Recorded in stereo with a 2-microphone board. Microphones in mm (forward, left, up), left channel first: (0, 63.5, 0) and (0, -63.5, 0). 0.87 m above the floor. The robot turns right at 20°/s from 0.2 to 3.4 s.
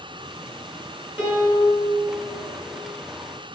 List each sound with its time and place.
1.2 s a piano: 15° right (ahead or behind), 2.5 m; by 1.8 s 25° right (ahead or behind), 2.5 m